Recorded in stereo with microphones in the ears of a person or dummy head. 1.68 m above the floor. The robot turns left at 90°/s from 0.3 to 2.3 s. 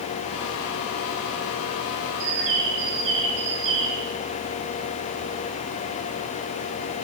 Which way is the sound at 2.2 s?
60° right (ahead or behind).